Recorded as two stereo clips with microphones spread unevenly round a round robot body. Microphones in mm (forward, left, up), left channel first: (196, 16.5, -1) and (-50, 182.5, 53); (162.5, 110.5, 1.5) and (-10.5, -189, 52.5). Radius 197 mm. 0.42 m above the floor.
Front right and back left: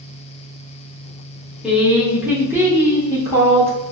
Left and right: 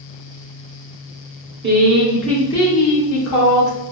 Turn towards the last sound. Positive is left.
turn(degrees=55)